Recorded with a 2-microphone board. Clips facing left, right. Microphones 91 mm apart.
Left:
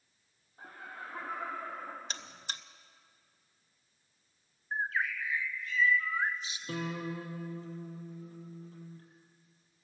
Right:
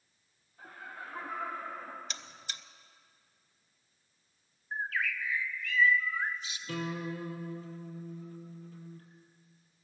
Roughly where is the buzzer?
Left.